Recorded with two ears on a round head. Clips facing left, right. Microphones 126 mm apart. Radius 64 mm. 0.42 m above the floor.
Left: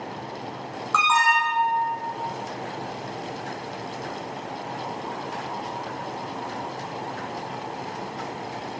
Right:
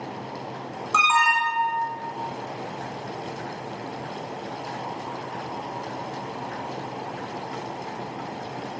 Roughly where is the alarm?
Right.